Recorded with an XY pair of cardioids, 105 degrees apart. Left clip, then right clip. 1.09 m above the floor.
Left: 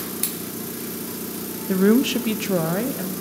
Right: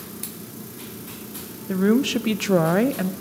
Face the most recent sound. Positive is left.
turn(degrees=-50)